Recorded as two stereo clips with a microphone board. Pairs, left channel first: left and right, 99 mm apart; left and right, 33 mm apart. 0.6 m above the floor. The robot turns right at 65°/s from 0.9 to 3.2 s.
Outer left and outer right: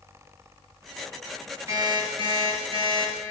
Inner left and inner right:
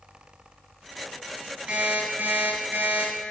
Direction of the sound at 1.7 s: 150° right.